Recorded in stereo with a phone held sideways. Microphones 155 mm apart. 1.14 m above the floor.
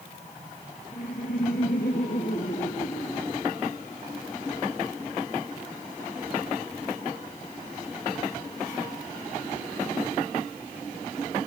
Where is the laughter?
65° left (ahead or behind), 1.6 m; by 4.6 s 50° left (ahead or behind), 4 m.